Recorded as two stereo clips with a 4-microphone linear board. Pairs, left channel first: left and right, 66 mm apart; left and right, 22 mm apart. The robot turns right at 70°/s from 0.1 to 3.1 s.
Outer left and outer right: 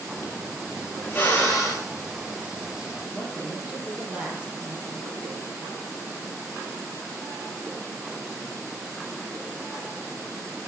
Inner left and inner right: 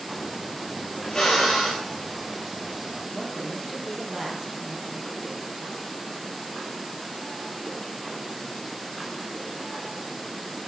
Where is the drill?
145° left, 6 m; by 1.9 s 165° right, 6 m.